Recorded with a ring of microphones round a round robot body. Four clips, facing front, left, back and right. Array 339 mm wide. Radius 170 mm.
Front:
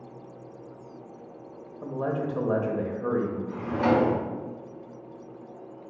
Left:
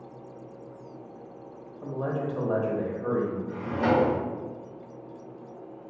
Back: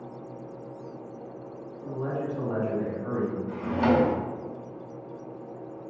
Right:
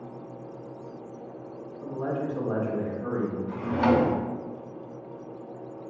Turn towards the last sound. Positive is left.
turn(degrees=-125)